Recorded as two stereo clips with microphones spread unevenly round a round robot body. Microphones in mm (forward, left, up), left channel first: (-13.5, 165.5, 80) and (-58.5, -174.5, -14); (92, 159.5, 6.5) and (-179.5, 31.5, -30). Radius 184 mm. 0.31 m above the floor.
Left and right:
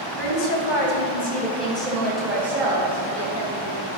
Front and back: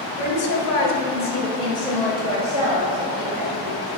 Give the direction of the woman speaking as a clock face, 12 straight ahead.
11 o'clock.